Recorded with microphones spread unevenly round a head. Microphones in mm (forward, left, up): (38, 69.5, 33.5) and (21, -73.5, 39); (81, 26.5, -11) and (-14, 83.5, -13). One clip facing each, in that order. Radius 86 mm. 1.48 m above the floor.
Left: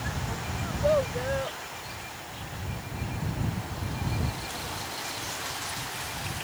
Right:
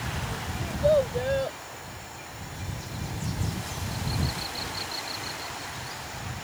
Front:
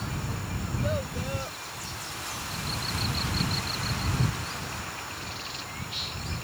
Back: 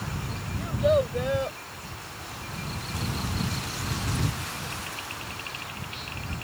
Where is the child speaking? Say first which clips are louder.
Right 3 dB, back 10 dB; 170° right; by 1.6 s 160° right.